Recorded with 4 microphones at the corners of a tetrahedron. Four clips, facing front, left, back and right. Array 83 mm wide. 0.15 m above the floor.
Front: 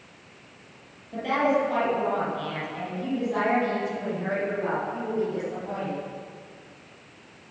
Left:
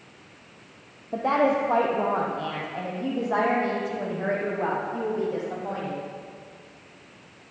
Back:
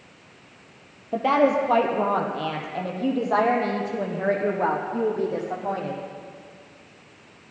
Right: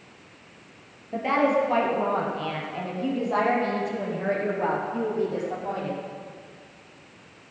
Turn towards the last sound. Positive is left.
turn(degrees=180)